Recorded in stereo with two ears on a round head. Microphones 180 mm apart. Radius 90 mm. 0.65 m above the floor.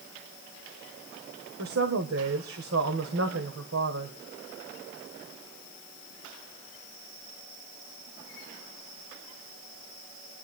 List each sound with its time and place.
1.6 s a woman speaking: 75° right (ahead or behind), 2 m